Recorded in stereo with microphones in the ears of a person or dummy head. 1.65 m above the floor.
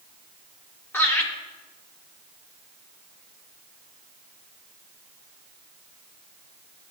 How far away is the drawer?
I don't hear a drawer.